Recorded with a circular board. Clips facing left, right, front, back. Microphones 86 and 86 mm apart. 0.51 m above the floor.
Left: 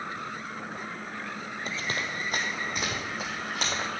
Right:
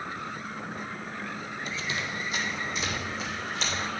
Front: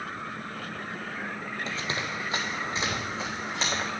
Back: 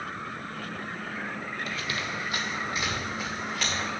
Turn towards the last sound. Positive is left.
turn(degrees=65)